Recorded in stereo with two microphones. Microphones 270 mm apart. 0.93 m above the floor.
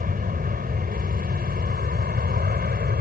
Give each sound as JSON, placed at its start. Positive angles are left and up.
{"t": 0.0, "sound": "an aircraft", "side_deg": -30}